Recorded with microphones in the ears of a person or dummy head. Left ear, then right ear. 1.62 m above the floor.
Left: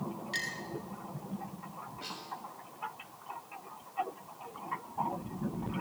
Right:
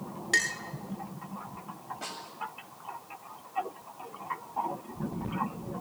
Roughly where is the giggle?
No giggle in this recording.